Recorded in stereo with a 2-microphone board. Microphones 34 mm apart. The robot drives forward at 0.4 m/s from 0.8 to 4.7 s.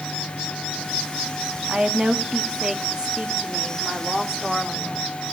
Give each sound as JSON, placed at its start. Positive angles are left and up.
{"t": 1.7, "sound": "a woman speaking", "side_deg": -30, "distance_m": 1.6}